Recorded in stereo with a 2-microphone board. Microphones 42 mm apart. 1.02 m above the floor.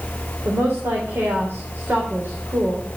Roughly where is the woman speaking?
Right.